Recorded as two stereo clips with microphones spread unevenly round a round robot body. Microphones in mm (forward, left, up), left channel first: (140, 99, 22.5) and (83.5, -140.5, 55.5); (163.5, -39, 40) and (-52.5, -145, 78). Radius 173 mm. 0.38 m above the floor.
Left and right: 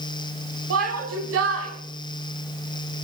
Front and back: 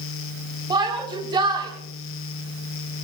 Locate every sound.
0.7 s a shout: 80° right, 3.5 m